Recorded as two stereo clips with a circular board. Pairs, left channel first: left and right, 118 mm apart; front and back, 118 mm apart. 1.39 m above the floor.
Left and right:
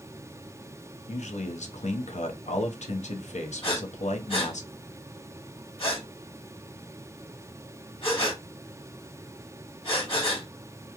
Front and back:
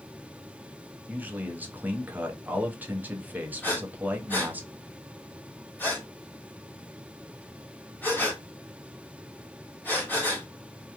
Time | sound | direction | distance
1.1 | a man speaking | 105° left | 0.7 m
3.6 | breathing | 70° left | 1.7 m